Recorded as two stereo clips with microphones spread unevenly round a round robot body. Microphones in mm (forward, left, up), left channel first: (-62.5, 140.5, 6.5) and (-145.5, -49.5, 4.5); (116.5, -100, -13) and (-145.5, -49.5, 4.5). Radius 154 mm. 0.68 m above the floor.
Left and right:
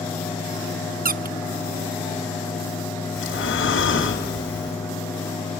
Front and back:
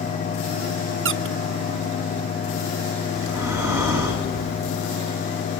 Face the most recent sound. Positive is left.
turn(degrees=90)